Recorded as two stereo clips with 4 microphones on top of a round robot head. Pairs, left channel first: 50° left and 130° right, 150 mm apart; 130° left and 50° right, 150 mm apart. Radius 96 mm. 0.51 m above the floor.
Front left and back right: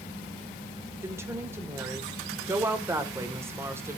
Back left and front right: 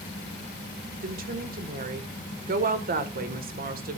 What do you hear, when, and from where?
1.0 s a woman speaking: 55° right, 1.9 m